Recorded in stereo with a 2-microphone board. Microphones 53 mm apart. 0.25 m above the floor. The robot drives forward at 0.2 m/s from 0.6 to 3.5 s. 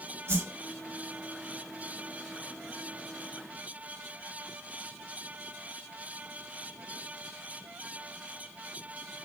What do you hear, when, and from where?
0.3 s a whoosh: 55° right (ahead or behind), 1.7 m